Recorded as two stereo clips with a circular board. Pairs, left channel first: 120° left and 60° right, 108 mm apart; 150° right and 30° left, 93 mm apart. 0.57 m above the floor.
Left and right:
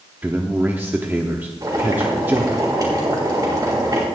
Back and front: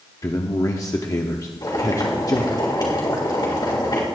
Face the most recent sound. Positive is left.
turn(degrees=-110)